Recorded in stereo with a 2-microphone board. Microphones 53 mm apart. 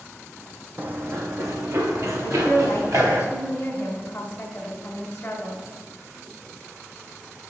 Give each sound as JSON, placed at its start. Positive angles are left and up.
{"t": 0.8, "sound": "running footsteps", "side_deg": -35, "distance_m": 0.5}
{"t": 2.2, "sound": "a woman speaking", "side_deg": 30, "distance_m": 1.1}